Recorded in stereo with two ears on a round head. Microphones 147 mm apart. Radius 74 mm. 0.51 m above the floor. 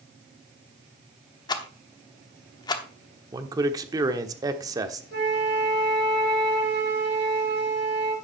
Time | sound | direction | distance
1.5 | a rattle | 25° left (ahead or behind) | 1.0 m
3.3 | a man speaking | 20° right (ahead or behind) | 1.1 m
5.1 | a flute | 70° right (ahead or behind) | 3.5 m